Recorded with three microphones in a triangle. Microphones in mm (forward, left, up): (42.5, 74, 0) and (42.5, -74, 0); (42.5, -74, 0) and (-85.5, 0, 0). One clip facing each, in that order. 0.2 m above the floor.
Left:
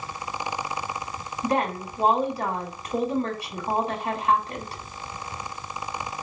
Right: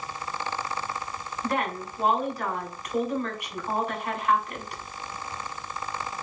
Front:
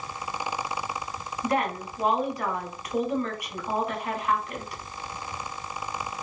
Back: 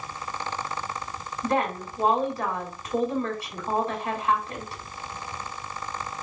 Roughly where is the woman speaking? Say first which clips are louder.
Left 4 dB, back 1 dB; behind left.